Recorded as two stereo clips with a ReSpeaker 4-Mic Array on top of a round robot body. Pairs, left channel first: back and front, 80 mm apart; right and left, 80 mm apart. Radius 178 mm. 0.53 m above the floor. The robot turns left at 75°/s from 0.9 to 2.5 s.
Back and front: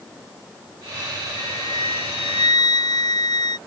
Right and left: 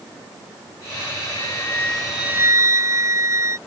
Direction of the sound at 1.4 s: 130° right.